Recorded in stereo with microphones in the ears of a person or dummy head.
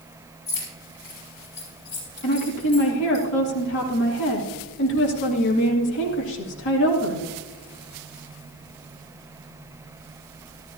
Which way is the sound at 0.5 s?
70° left (ahead or behind).